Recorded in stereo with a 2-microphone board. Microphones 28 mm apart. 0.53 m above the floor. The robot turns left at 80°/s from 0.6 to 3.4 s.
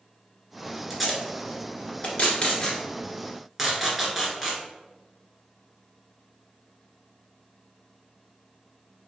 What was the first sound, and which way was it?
Tape being pulled, centre (ahead or behind).